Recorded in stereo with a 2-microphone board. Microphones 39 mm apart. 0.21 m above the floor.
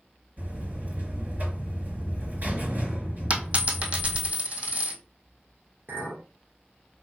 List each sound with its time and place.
0.4 s a buzzer: 50° right (ahead or behind), 3 m
3.3 s a dropped coin: 35° right (ahead or behind), 1.9 m
5.9 s a clink: 70° right (ahead or behind), 2.5 m